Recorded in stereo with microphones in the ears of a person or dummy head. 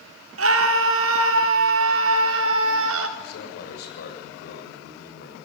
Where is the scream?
85° right, 3.5 m.